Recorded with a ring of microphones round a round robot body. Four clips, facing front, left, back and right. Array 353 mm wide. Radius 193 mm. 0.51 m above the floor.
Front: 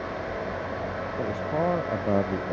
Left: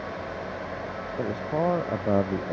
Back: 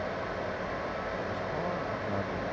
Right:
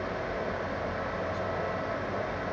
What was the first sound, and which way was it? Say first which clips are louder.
A man speaking: left 9 dB, front 6 dB; 60° left.